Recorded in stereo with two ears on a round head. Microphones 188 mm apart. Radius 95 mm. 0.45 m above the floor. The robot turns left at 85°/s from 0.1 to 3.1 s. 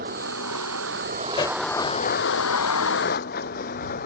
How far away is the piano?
I don't hear a piano.